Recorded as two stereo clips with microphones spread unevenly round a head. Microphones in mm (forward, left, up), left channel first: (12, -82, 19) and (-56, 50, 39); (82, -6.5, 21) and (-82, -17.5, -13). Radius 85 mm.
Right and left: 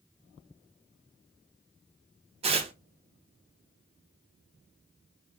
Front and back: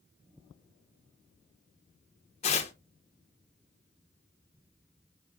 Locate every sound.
2.4 s tearing paper: 60° left, 0.6 m